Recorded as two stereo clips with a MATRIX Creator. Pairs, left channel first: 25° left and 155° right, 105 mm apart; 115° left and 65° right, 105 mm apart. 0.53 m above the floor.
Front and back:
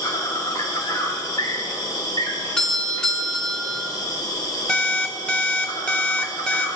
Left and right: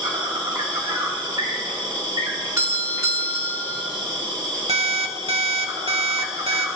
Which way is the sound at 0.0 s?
25° right.